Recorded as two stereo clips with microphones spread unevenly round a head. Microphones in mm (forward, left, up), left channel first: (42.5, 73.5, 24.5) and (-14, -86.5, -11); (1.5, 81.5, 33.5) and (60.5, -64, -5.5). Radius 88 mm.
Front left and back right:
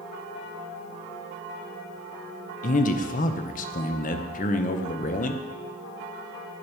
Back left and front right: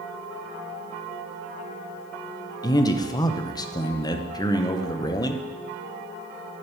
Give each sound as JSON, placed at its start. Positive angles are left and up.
{"t": 2.6, "sound": "a man speaking", "azimuth_deg": 65, "distance_m": 0.7}